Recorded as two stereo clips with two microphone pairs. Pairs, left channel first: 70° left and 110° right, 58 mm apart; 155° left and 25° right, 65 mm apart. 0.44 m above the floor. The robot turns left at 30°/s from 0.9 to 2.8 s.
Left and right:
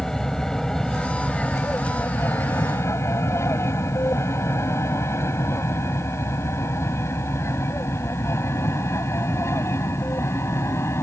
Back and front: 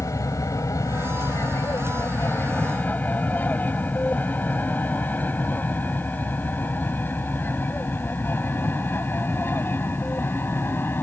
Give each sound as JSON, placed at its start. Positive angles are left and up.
{"t": 0.0, "sound": "an aircraft", "azimuth_deg": 150}